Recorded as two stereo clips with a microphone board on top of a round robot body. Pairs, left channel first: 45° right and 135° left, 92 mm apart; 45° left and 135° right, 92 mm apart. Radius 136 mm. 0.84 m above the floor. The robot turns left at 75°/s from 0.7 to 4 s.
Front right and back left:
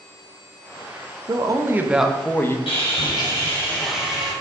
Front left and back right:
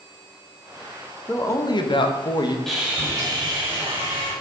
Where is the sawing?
40° right, 3.5 m; by 4.3 s 140° right, 3.5 m.